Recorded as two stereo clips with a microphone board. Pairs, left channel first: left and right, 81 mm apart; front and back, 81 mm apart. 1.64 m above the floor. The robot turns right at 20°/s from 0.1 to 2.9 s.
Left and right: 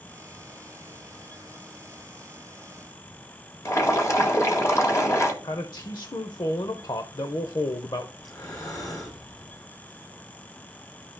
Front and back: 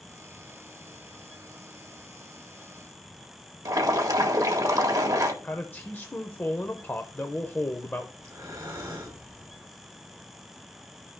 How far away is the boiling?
About 1.5 m.